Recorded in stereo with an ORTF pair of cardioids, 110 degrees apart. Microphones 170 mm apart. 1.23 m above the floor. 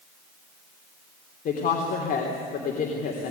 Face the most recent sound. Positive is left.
turn(degrees=55)